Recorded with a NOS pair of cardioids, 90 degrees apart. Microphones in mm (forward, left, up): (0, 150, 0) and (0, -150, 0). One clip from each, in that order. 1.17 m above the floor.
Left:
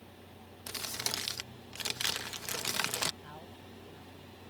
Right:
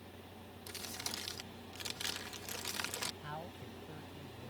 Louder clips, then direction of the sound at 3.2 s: Right 3 dB; 40° right.